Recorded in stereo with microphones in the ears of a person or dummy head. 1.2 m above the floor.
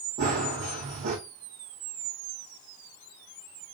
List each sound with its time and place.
0.2 s running footsteps: 45° right (ahead or behind), 2.5 m